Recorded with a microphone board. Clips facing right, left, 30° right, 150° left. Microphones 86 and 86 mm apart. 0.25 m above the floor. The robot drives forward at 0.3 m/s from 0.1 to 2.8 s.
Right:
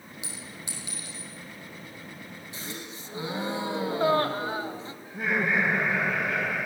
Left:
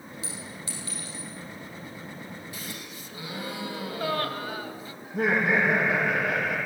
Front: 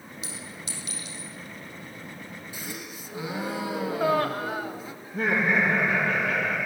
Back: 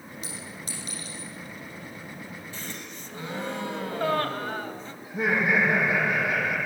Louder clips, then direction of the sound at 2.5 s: Even, front 1 dB; 95° right.